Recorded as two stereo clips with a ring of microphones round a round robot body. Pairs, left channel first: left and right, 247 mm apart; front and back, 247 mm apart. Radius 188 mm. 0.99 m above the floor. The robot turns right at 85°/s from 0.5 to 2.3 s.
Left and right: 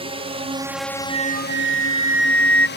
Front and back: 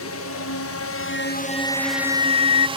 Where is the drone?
25° right; by 2.8 s 115° left.